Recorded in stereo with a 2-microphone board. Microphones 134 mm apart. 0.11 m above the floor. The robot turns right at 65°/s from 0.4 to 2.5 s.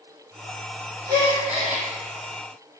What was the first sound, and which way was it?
A gasp, 150° right.